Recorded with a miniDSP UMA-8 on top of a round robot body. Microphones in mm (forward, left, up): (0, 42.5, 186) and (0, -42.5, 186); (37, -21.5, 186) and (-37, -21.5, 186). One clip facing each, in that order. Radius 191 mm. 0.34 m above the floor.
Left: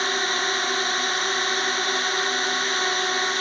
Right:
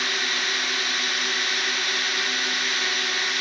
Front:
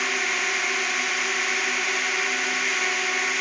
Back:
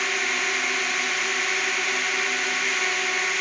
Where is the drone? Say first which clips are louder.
Left 4 dB, even; 85° left.